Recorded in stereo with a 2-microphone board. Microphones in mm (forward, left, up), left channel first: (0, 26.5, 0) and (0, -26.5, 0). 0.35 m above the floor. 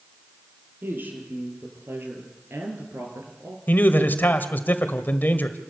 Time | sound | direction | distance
0.8 | a woman speaking | 45° right (ahead or behind) | 8 m
3.7 | a man speaking | 40° left (ahead or behind) | 1.5 m